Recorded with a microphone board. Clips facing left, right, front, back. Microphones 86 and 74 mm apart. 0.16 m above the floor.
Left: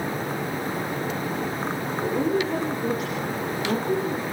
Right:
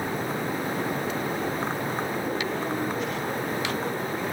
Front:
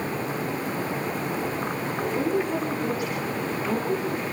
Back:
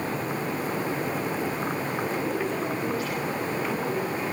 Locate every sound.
2.0 s a woman speaking: 65° left, 7 m; by 4.2 s 75° left, 9 m